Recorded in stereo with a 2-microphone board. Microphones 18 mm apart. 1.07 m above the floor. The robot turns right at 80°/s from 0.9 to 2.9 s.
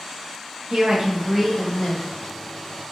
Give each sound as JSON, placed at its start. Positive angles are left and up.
{"t": 0.7, "sound": "a woman speaking", "azimuth_deg": -45, "distance_m": 1.0}